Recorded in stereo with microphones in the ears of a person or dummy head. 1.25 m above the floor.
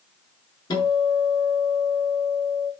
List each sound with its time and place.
0.7 s a guitar: 35° left (ahead or behind), 7 m